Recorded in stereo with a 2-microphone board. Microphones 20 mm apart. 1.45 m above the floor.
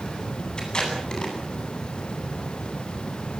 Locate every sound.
0.6 s tape being pulled: 50° left (ahead or behind), 9.5 m